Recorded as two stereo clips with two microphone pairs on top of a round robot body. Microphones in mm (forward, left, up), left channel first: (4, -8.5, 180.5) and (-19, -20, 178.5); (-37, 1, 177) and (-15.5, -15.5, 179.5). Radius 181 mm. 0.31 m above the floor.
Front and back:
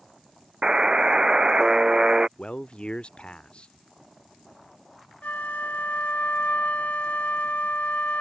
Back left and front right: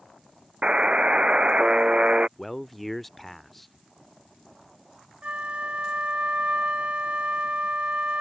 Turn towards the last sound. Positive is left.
turn(degrees=10)